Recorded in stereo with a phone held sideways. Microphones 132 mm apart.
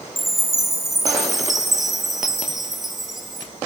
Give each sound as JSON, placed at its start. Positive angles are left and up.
{"t": 0.2, "sound": "a chime", "side_deg": 0, "distance_m": 0.7}